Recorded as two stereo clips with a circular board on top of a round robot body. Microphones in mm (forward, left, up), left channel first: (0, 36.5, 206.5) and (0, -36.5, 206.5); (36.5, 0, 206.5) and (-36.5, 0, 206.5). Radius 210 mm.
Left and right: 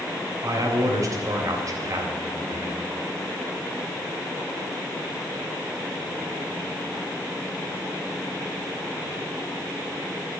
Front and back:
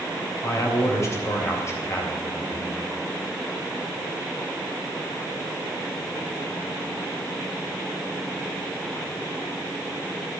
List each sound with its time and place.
0.4 s a man speaking: 50° right, 3.5 m